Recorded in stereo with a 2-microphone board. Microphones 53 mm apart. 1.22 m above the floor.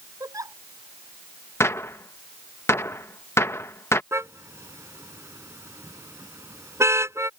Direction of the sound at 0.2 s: 85° right.